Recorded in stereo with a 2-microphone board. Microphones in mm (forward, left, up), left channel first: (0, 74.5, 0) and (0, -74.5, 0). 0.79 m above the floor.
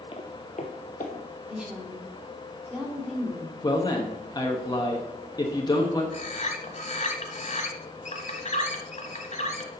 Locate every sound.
0.1 s footsteps: 35° left (ahead or behind), 1.0 m; by 1.3 s 55° left (ahead or behind), 1.8 m
1.5 s a woman speaking: 5° right (ahead or behind), 2.5 m
3.6 s a man speaking: 25° left (ahead or behind), 1.1 m
6.1 s a bird: 50° left (ahead or behind), 1.1 m